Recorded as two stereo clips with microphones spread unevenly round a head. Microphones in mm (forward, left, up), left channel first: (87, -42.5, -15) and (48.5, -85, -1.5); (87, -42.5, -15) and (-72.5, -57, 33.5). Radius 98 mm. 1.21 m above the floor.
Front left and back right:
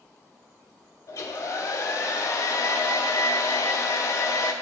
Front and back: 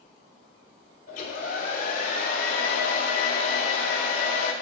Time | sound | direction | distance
1.1 | a hair dryer | 50° left | 1.0 m